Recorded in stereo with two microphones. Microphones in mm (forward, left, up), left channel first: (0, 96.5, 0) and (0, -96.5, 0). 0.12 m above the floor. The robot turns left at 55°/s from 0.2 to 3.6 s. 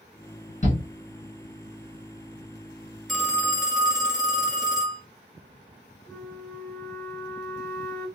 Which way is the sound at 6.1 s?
15° left (ahead or behind).